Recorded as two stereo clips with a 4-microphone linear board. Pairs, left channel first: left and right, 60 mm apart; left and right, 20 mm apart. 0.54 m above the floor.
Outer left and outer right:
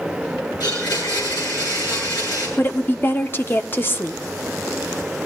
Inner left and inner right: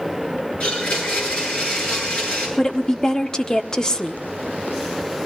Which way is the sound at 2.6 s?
35° left (ahead or behind).